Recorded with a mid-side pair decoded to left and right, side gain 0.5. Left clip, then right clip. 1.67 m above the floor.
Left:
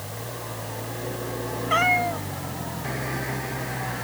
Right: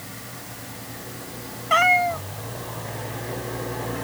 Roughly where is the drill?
No drill in this recording.